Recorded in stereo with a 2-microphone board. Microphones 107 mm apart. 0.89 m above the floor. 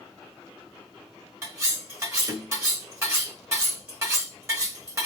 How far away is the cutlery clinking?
About 1.4 m.